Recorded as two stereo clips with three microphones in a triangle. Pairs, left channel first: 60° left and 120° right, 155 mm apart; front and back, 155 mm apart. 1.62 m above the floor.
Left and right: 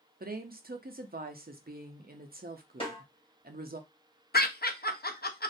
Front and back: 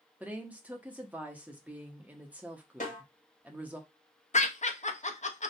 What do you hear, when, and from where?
0.2 s a woman speaking: 100° right, 0.6 m
2.8 s a snare drum: 15° left, 1.4 m
4.3 s laughter: 45° left, 0.6 m